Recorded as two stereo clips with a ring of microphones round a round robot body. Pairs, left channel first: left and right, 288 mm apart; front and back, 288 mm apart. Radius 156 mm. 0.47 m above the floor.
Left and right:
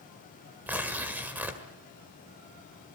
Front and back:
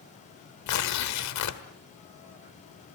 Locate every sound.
0.7 s tearing paper: 5° right, 1.6 m